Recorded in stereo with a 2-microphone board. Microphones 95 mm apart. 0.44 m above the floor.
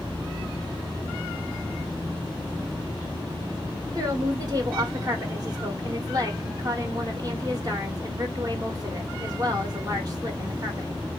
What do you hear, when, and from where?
4.0 s a woman speaking: 40° right (ahead or behind), 1.4 m